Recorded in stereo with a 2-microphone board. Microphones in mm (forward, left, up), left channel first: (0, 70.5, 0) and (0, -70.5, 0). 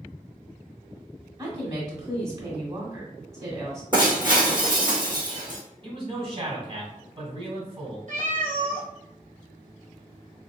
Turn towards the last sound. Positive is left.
turn(degrees=-60)  # may be behind; listen again after turning